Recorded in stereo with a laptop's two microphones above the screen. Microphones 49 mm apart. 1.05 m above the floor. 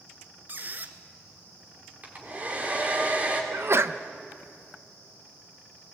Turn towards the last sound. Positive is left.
turn(degrees=-55)  # may be behind; listen again after turning